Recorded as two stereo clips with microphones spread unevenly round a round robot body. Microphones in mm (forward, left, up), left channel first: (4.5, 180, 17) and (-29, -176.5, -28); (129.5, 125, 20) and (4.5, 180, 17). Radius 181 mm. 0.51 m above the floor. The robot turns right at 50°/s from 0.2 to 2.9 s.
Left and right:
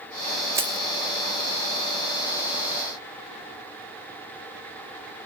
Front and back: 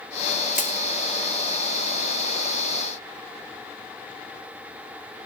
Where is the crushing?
20° right; by 0.8 s 5° right.